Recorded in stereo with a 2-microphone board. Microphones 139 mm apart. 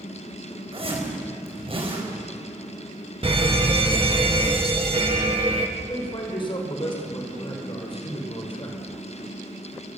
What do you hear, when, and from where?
0.7 s a zipper: 45° right (ahead or behind), 5 m
3.2 s a fire alarm: 40° right (ahead or behind), 2 m
5.8 s a man speaking: 35° left (ahead or behind), 5 m